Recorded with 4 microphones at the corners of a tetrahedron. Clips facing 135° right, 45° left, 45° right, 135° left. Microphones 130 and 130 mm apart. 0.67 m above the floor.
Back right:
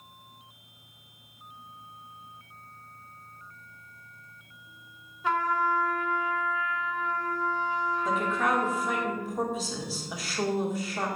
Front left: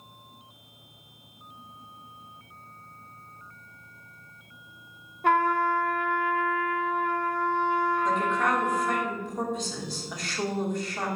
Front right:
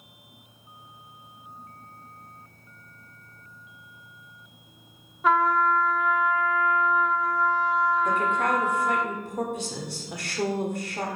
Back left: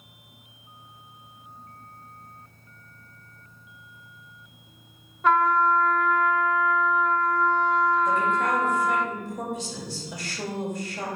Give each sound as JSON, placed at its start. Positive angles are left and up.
{"t": 5.2, "sound": "a trumpet", "azimuth_deg": 40, "distance_m": 0.5}
{"t": 8.1, "sound": "a woman speaking", "azimuth_deg": -50, "distance_m": 2.0}